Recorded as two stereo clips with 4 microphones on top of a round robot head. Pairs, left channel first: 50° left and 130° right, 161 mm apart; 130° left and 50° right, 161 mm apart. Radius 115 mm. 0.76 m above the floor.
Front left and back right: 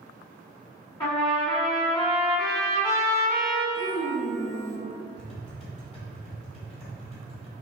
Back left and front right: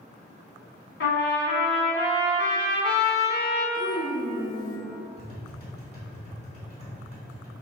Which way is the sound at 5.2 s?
90° left.